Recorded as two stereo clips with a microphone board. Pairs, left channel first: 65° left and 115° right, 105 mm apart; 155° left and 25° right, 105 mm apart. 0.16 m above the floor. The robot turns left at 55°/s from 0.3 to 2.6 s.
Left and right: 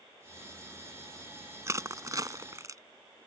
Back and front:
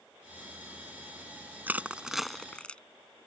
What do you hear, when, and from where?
1.7 s crushing: 80° right; by 2.8 s 130° right